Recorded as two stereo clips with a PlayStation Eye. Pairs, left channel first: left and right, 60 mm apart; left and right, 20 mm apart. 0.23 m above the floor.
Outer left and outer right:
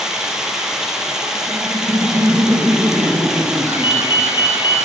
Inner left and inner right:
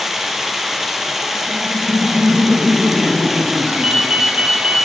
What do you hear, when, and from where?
0.0 s running water: 10° right (ahead or behind), 2.5 m
1.5 s laughter: 60° right (ahead or behind), 3.5 m
3.6 s a ringtone: 35° right (ahead or behind), 3 m